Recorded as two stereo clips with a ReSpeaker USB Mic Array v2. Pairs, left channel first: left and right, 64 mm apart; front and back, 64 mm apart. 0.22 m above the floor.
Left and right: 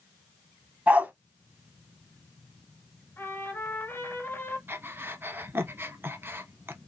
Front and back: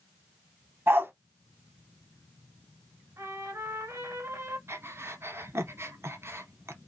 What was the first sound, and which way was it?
A dog barking, 145° right.